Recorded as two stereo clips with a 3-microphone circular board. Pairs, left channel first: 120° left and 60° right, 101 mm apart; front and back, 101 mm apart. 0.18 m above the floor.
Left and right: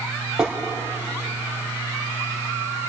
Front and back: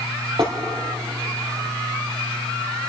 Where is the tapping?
145° right, 4 m.